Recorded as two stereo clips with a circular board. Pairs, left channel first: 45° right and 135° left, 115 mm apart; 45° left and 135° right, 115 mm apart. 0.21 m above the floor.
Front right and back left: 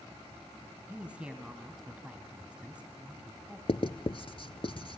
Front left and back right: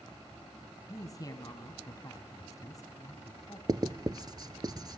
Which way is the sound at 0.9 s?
65° left.